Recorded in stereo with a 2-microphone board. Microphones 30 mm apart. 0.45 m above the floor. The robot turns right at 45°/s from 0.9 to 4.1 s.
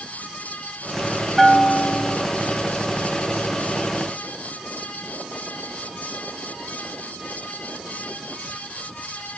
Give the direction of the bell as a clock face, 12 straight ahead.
12 o'clock.